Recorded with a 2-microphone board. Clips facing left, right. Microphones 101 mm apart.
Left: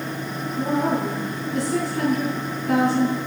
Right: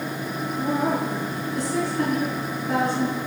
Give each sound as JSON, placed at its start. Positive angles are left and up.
{"t": 0.6, "sound": "a woman speaking", "side_deg": 65, "distance_m": 4.5}